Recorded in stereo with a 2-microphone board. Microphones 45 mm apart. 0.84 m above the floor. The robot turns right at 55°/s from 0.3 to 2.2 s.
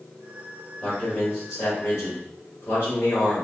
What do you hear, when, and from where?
0.8 s a man speaking: 20° left, 1.9 m; by 3.4 s 95° left, 1.9 m